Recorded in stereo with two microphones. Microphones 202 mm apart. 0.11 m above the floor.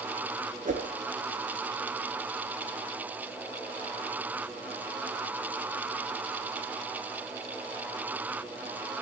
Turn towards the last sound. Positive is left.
turn(degrees=-40)  # may be behind; listen again after turning